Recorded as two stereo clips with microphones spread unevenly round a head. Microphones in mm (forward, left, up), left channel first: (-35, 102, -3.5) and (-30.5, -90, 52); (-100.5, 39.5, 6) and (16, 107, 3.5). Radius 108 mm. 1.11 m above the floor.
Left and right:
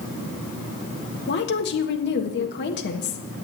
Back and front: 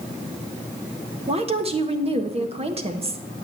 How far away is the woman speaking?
About 1.5 m.